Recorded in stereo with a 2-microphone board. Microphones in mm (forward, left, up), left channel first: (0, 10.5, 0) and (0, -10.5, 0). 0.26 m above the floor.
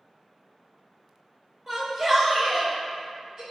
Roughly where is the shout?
Centre.